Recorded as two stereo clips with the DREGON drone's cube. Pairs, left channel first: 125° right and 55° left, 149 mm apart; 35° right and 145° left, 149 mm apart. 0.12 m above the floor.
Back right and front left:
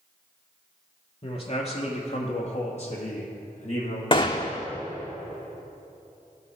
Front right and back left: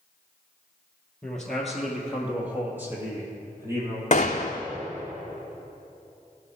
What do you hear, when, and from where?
1.2 s a man speaking: 115° right, 1.6 m; by 4.0 s 150° right, 2.5 m
4.1 s a gunshot: 70° right, 0.9 m